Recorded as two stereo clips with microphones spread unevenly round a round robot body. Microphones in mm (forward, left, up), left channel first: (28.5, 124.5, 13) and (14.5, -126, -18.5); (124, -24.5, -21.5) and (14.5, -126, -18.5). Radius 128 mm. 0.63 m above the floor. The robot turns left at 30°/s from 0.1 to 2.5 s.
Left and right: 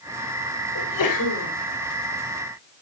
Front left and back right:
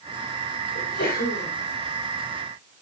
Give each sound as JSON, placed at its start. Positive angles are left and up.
{"t": 0.8, "sound": "a sneeze", "azimuth_deg": 85, "distance_m": 3.5}